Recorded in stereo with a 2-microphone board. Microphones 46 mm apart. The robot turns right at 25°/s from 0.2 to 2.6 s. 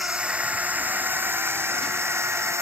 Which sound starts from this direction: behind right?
A drone, at 0.0 s.